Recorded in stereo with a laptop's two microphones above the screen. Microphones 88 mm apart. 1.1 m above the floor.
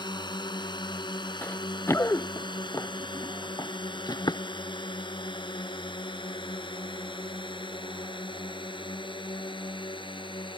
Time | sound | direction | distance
0.0 | a drone | 60° left (ahead or behind) | ?
1.4 | running footsteps | 25° left (ahead or behind) | ?